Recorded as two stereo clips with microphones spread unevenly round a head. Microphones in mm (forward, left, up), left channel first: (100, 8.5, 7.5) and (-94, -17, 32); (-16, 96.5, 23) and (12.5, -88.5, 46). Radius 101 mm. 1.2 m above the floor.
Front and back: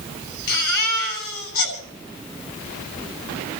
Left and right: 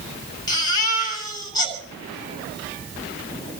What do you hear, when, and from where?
0.5 s a baby crying: 30° left, 8.5 m